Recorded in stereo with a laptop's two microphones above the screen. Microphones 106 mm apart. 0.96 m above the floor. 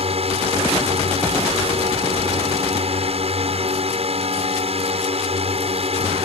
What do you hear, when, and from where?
0.0 s a drone: 65° right (ahead or behind)